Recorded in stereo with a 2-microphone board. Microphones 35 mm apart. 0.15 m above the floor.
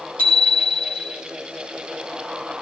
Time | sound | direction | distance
0.2 | a bicycle bell | 40° left (ahead or behind) | 4.5 m